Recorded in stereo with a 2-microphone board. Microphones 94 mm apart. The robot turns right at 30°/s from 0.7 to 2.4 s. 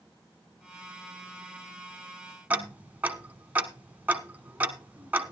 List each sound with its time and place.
2.5 s ticking: 15° right (ahead or behind), 1.3 m